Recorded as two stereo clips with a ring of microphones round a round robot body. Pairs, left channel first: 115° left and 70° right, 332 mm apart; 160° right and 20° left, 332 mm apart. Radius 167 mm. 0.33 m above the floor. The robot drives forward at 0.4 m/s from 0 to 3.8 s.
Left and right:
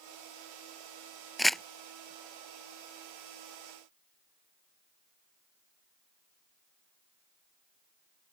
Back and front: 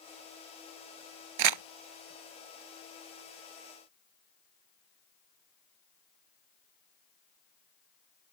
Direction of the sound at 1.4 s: 20° left.